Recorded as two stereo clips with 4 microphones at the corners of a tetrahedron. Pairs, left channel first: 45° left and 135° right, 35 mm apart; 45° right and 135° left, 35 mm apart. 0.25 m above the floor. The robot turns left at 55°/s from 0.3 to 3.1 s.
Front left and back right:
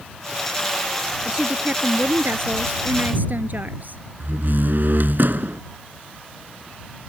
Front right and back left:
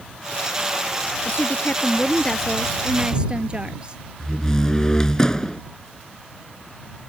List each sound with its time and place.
1.2 s a woman speaking: 65° right; by 4.0 s 165° right
4.2 s a door slam: 115° right